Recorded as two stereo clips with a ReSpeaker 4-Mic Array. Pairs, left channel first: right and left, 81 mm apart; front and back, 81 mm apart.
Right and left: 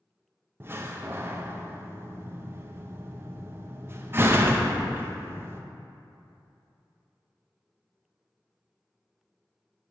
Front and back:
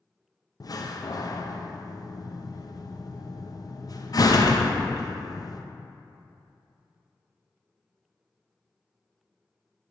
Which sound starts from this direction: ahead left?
A door slam, at 0.6 s.